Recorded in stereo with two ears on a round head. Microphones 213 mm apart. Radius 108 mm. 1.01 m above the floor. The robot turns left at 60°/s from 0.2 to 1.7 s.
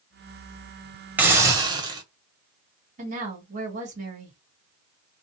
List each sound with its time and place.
1.2 s a hiss: 5° right (ahead or behind), 0.8 m; by 2.0 s 20° right (ahead or behind), 0.8 m
3.0 s a woman speaking: 30° right (ahead or behind), 1.8 m